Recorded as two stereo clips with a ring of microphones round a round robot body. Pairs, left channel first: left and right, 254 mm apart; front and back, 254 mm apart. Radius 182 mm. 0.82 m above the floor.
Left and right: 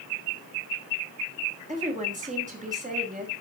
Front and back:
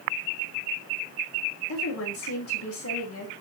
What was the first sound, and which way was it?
A woman speaking, 30° right.